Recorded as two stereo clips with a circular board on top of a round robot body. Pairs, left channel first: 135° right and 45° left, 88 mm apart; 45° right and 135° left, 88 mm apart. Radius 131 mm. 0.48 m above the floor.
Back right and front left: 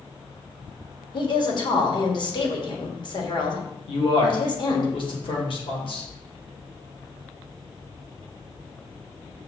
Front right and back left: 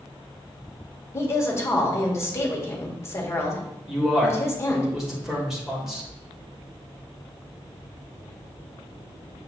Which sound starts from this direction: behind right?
A man speaking, at 3.9 s.